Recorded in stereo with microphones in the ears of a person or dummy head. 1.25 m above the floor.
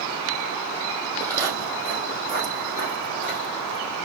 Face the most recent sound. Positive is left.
turn(degrees=40)  # may be behind; listen again after turning